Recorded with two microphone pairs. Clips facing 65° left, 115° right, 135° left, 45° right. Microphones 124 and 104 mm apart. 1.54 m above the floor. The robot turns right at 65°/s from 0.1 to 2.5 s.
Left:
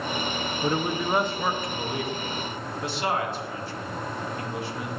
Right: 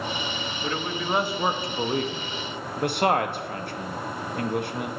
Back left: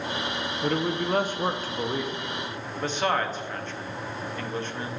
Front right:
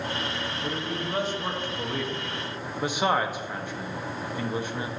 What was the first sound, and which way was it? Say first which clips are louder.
A man speaking: left 4 dB, back left 8 dB; 125° left.